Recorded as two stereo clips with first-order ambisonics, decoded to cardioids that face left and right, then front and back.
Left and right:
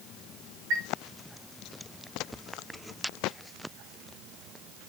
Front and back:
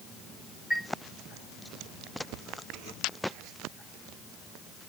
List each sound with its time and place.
0.7 s a chime: 95° right, 2.0 m